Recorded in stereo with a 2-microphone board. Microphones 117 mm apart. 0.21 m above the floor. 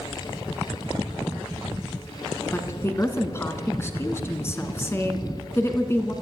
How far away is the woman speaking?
About 1.9 m.